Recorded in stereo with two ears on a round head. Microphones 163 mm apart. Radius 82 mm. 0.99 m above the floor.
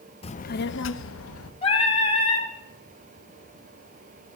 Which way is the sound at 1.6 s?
30° left (ahead or behind).